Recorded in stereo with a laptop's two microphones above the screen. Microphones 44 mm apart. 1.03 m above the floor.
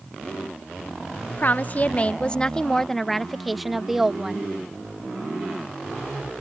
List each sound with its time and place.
1.3 s a woman speaking: 45° left (ahead or behind); by 4.5 s 10° right (ahead or behind)